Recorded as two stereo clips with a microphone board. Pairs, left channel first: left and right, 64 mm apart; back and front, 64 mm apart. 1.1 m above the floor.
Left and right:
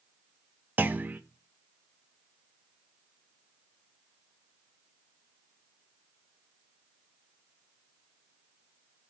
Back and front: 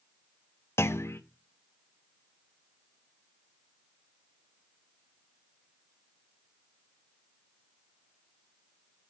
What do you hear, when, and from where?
0.8 s a clunk: 145° right, 0.6 m